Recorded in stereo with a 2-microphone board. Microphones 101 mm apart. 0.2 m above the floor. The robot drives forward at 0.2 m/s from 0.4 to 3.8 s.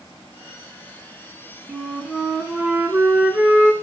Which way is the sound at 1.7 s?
10° right (ahead or behind).